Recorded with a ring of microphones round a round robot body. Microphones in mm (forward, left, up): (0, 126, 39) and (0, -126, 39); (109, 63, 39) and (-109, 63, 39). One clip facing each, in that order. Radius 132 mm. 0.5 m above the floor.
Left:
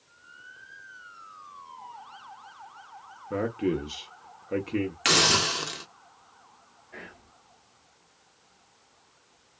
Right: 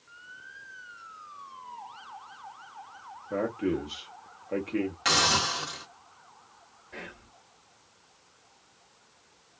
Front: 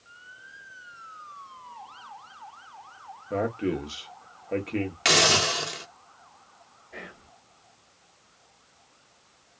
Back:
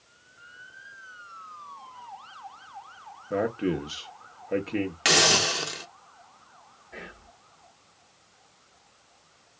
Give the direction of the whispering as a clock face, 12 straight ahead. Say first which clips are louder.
Right 2 dB, even; 3 o'clock.